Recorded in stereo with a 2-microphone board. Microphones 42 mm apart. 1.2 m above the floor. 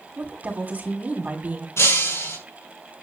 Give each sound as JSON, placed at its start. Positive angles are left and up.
{"t": 0.2, "sound": "a woman speaking", "side_deg": -35, "distance_m": 3.5}
{"t": 1.8, "sound": "breaking glass", "side_deg": 85, "distance_m": 6.5}